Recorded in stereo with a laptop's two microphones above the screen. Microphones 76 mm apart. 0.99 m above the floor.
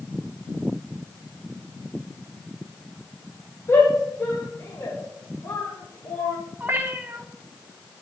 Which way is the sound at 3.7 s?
35° left (ahead or behind).